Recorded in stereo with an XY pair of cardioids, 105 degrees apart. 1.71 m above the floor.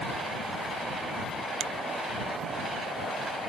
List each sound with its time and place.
1.6 s a finger snap: 70° right